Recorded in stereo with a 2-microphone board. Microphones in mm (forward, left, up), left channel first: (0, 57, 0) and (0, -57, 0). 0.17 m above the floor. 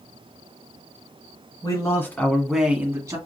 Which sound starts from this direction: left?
A man speaking, at 1.6 s.